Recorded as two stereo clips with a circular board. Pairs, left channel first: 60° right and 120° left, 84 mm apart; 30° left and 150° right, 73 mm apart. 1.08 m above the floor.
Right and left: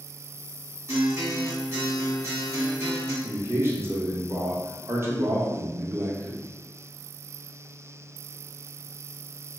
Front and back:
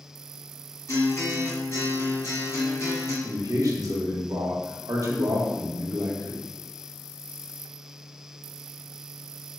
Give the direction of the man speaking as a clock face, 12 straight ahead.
6 o'clock.